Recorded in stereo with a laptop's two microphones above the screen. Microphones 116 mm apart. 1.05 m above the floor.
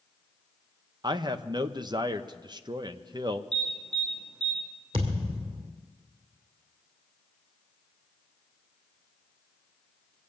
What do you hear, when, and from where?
1.0 s a man speaking: 40° right (ahead or behind), 0.6 m
3.5 s an alarm: 45° right (ahead or behind), 7.5 m
4.9 s a thud: 50° right (ahead or behind), 2.5 m